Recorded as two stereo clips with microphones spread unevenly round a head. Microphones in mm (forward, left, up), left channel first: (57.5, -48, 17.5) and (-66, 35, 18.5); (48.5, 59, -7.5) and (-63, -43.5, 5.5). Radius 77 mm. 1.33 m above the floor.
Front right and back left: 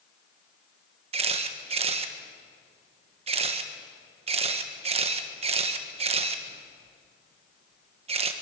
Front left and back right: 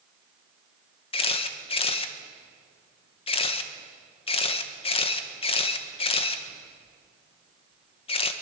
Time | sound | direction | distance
1.1 | a camera shutter | 95° left | 1.5 m